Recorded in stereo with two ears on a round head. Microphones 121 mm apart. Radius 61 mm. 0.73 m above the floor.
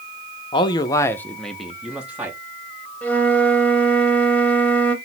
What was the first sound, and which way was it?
A man speaking, 35° left (ahead or behind).